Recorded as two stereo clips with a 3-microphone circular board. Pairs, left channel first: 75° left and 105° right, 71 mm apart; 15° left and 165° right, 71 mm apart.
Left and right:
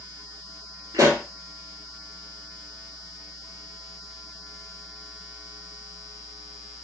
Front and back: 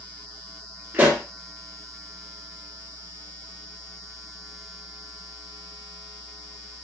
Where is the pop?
110° right, 1.3 m.